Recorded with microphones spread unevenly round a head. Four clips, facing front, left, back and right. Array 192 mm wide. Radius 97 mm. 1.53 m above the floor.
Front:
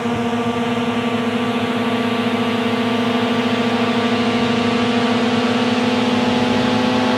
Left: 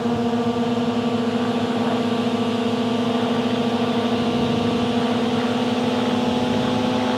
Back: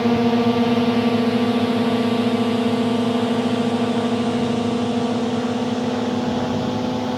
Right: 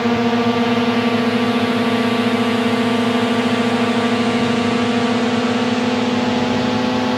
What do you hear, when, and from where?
0.0 s a drone: 130° right; by 7.2 s 30° right